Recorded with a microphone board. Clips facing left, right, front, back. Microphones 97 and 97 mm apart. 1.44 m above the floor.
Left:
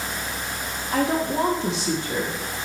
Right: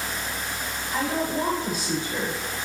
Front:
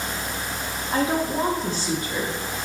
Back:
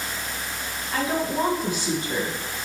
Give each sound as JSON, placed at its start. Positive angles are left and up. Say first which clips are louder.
{"t": 0.9, "sound": "a woman speaking", "louder": "left 4 dB, front 2 dB", "azimuth_deg": 60, "distance_m": 1.3}